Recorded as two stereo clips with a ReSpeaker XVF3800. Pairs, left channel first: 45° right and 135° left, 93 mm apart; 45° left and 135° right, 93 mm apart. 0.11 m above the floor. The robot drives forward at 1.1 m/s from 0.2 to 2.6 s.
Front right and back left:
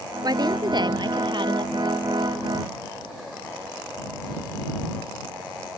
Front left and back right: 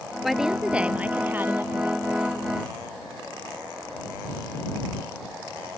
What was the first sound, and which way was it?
A woman speaking, 135° left.